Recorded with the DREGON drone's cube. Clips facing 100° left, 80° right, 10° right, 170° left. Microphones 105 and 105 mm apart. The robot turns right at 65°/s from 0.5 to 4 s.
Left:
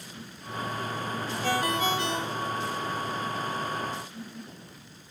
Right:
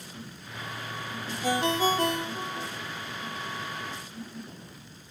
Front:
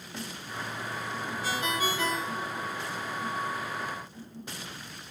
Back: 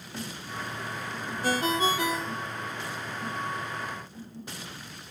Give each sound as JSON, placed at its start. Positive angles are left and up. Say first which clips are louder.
{"t": 1.4, "sound": "a ringtone", "louder": "right 2 dB, back 6 dB", "azimuth_deg": -155, "distance_m": 1.1}